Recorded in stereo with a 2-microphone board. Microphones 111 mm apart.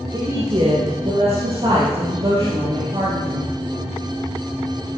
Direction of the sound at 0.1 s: 35° right (ahead or behind).